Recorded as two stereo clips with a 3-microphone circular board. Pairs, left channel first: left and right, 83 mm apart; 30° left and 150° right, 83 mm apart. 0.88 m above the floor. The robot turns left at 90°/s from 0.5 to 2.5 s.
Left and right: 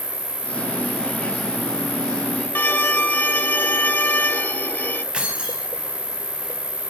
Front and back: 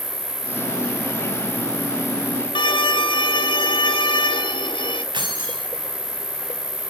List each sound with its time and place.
0.0 s an insect: 100° right, 4.5 m; by 6.9 s 80° left, 4.5 m
2.5 s a violin: 25° left, 1.4 m
5.1 s keys jangling: 170° right, 5 m